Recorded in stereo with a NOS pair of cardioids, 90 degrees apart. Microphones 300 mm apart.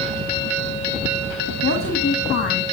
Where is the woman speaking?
40° left, 2.0 m.